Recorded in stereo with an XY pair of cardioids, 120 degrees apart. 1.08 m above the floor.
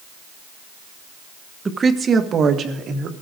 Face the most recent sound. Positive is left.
turn(degrees=-55)